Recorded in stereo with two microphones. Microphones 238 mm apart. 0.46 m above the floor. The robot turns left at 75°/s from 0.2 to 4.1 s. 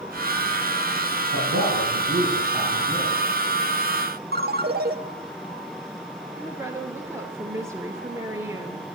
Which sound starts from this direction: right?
A ringtone, at 4.3 s.